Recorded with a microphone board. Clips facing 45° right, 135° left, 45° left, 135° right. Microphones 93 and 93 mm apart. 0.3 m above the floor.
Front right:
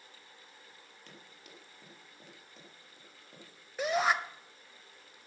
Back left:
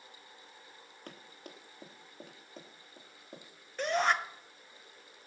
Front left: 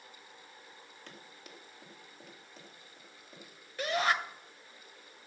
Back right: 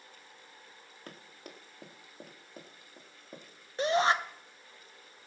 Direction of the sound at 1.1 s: 175° left.